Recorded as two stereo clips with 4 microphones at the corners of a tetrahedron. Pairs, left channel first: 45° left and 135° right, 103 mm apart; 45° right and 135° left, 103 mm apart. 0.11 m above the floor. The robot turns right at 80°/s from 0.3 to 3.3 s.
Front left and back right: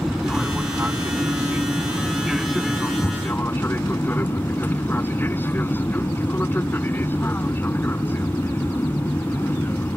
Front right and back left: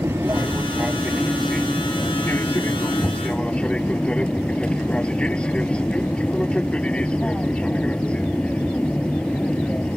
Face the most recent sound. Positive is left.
turn(degrees=20)